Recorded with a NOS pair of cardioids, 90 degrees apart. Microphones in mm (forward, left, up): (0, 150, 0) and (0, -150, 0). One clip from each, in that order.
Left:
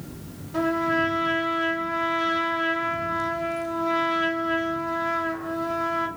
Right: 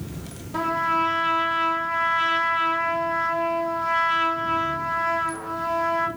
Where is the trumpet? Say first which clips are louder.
Right 1 dB; 20° right, 0.9 m.